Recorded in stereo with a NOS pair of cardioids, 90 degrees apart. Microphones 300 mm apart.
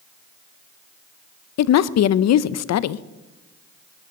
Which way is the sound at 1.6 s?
60° left.